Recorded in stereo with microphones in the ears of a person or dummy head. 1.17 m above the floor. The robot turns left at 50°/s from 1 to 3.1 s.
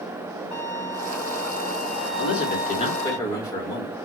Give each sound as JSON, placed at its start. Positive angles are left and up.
{"t": 0.5, "sound": "a violin", "azimuth_deg": 145, "distance_m": 2.5}
{"t": 2.2, "sound": "a man speaking", "azimuth_deg": 60, "distance_m": 2.5}